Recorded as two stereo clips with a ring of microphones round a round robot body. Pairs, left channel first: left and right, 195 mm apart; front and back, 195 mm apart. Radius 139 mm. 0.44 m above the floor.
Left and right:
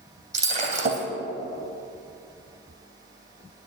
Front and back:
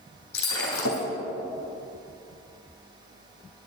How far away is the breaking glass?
About 3 m.